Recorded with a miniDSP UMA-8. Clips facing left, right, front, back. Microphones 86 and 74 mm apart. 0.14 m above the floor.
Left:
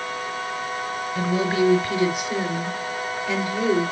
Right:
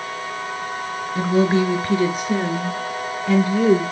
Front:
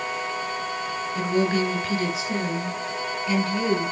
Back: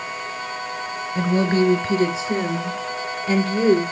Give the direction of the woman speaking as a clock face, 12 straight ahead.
5 o'clock.